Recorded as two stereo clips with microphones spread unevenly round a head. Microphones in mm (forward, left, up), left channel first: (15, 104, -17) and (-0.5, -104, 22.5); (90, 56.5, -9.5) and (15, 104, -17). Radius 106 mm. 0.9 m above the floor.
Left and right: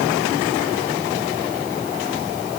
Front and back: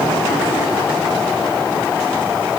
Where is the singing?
No singing in this recording.